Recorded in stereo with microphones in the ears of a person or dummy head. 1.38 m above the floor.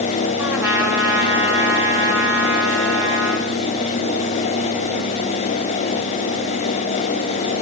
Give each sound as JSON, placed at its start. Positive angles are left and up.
{"t": 0.4, "sound": "a trumpet", "side_deg": -5, "distance_m": 3.5}